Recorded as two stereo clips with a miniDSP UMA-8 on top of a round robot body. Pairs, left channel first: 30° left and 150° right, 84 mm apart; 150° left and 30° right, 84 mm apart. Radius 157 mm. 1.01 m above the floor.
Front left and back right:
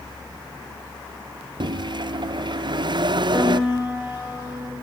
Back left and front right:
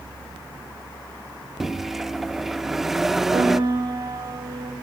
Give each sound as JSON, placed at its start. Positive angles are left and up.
{"t": 1.6, "sound": "a microwave", "azimuth_deg": -115, "distance_m": 0.6}
{"t": 3.3, "sound": "a piano", "azimuth_deg": -70, "distance_m": 5.0}